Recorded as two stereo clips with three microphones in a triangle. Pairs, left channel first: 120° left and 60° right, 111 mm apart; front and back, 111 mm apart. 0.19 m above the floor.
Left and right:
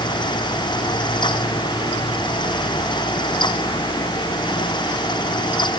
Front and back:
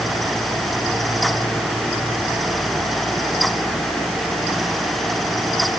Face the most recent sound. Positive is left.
No sound to turn to.